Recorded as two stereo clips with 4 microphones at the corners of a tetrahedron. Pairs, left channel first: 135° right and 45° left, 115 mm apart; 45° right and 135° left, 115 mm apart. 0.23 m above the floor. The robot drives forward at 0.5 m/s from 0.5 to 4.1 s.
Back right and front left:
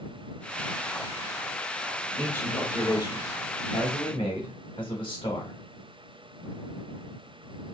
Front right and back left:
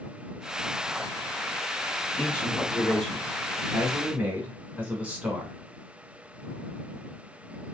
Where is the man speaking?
80° right, 1.1 m; by 5.5 s 150° right, 1.4 m.